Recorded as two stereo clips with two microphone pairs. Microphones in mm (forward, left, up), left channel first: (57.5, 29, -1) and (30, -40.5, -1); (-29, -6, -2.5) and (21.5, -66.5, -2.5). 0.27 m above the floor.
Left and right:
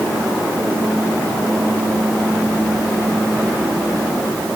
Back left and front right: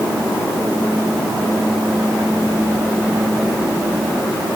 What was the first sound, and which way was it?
Only background noise.